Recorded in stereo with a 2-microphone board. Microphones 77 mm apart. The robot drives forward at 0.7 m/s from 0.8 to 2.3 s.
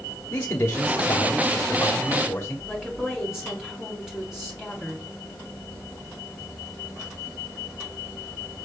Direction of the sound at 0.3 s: 25° left (ahead or behind).